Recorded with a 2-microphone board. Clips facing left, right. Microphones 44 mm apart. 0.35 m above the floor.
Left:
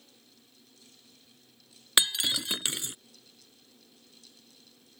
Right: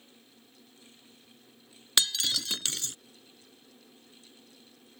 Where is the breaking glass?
20° left (ahead or behind).